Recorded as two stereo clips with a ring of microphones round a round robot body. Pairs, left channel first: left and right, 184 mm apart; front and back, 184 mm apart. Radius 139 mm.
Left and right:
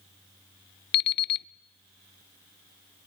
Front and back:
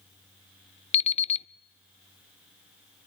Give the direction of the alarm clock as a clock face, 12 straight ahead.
10 o'clock.